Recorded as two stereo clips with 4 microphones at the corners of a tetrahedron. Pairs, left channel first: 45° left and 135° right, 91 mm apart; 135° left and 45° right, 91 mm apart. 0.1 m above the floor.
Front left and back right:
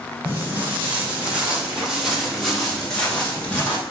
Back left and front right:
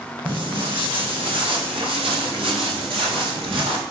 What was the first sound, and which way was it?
Footsteps, 70° right.